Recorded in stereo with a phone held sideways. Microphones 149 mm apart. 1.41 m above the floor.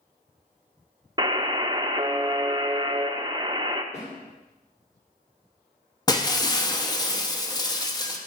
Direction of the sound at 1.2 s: 30° right (ahead or behind).